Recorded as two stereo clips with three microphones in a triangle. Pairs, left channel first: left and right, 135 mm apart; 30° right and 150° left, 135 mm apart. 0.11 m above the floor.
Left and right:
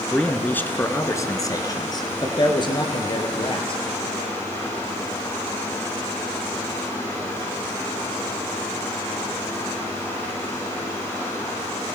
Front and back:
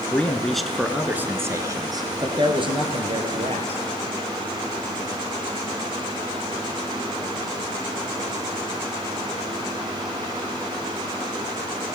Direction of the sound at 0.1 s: 20° left.